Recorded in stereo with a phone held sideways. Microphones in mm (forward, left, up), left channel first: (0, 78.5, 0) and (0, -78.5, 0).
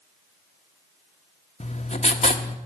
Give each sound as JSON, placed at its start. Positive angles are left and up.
{"t": 1.6, "sound": "writing", "side_deg": 45, "distance_m": 1.1}